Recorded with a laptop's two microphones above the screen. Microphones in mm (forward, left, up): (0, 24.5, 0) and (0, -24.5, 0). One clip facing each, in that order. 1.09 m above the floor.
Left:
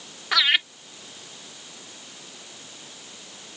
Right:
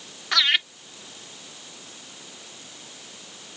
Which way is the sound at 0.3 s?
5° left (ahead or behind).